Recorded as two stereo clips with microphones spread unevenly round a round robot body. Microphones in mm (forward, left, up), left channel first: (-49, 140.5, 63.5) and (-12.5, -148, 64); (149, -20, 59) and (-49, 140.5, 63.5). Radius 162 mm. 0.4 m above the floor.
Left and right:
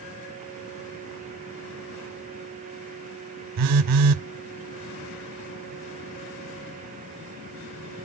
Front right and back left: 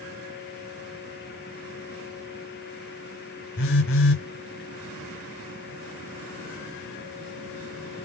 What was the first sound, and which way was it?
A phone buzzing, 85° right.